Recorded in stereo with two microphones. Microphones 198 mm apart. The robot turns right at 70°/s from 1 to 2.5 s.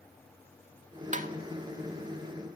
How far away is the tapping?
About 0.6 m.